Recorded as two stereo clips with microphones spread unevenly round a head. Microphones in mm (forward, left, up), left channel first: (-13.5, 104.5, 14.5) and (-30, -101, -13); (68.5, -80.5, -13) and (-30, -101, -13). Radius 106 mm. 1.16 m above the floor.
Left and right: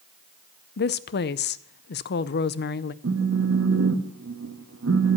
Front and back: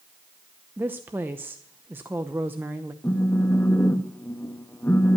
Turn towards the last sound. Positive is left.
turn(degrees=-60)